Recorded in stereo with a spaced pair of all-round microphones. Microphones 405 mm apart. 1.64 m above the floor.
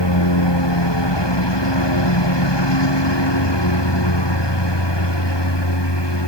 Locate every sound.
0.0 s a lawn mower: 75° left (ahead or behind)